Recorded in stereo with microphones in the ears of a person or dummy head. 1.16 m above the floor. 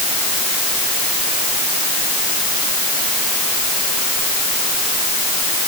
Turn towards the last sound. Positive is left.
No sound to turn to.